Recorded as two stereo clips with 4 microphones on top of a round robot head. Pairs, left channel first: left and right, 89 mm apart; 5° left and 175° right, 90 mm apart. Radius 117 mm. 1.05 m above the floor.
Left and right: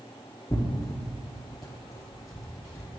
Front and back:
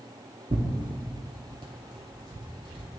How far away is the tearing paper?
About 0.7 m.